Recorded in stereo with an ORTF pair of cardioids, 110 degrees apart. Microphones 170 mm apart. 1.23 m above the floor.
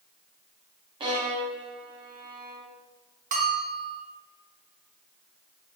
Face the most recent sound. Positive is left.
turn(degrees=-50)